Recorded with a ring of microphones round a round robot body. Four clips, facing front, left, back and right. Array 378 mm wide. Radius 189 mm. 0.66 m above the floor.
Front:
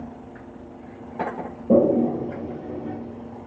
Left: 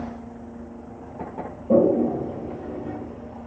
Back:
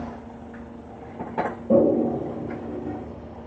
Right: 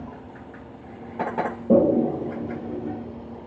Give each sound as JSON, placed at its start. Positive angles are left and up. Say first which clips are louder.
{"t": 1.7, "sound": "a toilet flushing", "louder": "even, front 1 dB", "azimuth_deg": -45, "distance_m": 0.8}